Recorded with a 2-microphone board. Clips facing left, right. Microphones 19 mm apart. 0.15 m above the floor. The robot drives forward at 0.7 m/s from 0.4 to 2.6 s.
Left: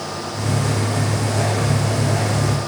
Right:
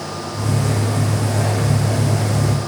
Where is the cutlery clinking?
I don't hear cutlery clinking.